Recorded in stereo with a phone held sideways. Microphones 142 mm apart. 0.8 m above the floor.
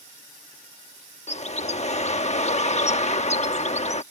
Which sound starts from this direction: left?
A bird, at 1.3 s.